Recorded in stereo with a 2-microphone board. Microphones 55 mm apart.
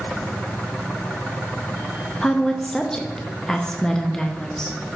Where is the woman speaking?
10° left (ahead or behind), 0.6 m.